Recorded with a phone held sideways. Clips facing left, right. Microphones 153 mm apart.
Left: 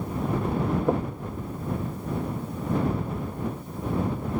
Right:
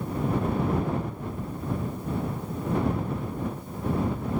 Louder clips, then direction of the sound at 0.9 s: Left 5 dB; 80° left.